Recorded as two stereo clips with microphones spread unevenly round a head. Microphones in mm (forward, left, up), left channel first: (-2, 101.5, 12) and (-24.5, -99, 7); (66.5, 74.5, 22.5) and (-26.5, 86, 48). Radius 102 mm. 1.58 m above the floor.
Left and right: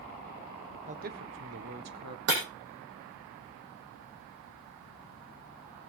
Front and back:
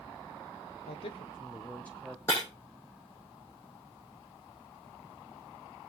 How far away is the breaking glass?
About 6 m.